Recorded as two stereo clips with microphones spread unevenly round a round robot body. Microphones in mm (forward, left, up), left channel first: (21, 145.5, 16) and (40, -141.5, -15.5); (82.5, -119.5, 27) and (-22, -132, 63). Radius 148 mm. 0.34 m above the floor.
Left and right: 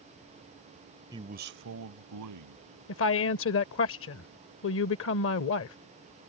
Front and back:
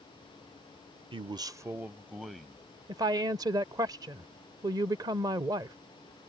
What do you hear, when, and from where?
1.1 s a man speaking: 145° right; by 2.6 s 80° right
2.9 s a woman speaking: 120° left